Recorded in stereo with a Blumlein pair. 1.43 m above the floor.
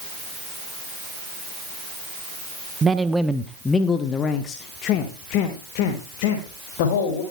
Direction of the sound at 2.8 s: 15° right.